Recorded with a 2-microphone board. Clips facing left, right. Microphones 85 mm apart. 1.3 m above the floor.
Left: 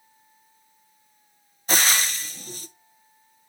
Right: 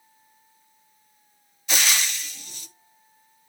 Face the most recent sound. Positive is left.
turn(degrees=40)  # may be behind; listen again after turning